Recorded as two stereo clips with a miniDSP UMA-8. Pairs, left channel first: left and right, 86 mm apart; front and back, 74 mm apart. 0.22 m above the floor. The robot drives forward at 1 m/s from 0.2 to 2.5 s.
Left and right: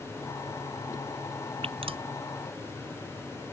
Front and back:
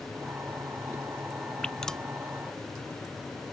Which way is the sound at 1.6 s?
80° right.